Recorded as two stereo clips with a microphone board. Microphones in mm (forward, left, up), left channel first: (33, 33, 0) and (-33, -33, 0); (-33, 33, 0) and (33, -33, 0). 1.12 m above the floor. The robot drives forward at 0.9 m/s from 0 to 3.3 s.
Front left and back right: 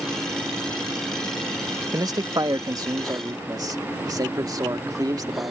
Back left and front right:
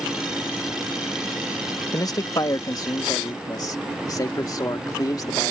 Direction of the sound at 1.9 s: Straight behind.